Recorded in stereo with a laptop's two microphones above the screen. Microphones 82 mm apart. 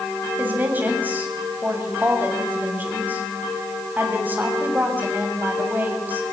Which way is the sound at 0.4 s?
25° right (ahead or behind).